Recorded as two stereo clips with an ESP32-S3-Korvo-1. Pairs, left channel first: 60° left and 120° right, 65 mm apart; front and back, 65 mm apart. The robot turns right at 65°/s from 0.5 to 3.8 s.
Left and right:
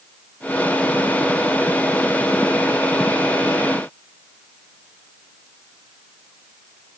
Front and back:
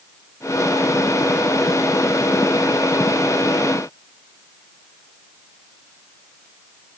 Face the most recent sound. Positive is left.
No sound to turn to.